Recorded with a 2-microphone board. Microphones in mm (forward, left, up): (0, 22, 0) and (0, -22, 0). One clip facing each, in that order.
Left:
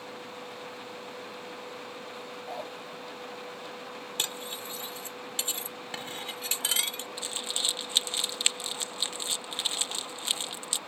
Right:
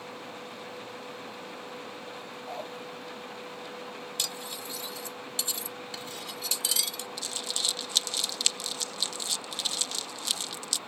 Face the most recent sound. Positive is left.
turn(degrees=30)  # may be behind; listen again after turning